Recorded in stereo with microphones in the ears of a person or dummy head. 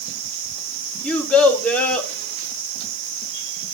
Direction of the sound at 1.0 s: 10° left (ahead or behind).